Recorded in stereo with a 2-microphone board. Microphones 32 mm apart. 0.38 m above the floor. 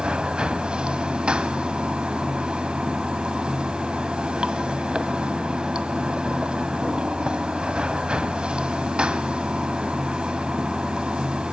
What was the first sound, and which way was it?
Running water, 35° right (ahead or behind).